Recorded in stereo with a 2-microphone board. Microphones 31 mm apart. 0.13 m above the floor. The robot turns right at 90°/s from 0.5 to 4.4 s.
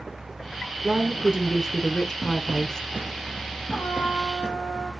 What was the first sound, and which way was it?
A woman speaking, 20° right (ahead or behind).